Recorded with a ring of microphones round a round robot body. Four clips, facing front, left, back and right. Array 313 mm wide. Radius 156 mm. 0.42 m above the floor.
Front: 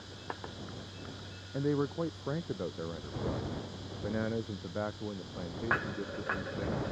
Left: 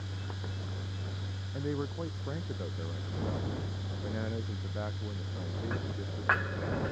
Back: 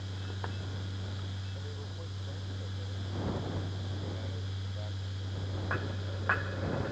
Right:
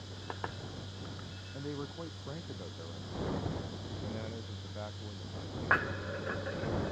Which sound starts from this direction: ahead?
A man speaking, at 1.5 s.